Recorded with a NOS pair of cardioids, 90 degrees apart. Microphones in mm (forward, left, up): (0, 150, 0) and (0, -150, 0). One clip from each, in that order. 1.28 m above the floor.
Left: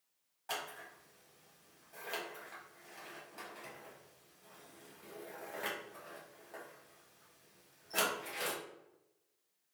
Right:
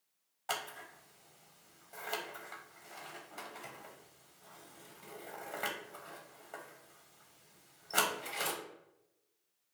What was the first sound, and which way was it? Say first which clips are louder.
Scissors: right 3 dB; 30° right.